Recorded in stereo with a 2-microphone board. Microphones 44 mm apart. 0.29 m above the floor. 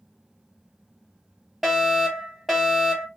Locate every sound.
1.6 s a fire alarm: 5° right (ahead or behind), 3.5 m